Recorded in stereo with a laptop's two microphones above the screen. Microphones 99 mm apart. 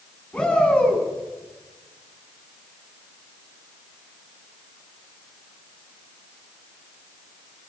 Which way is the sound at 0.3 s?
10° left (ahead or behind).